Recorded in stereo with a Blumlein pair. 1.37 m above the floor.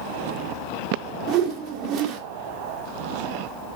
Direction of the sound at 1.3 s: 35° right.